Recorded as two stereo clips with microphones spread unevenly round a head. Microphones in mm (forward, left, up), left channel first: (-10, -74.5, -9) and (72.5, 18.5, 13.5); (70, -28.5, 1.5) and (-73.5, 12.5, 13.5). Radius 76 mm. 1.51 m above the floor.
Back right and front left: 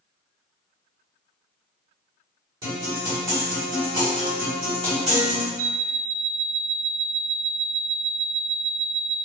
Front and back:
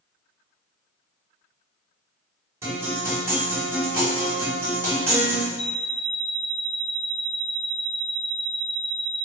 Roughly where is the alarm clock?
Ahead.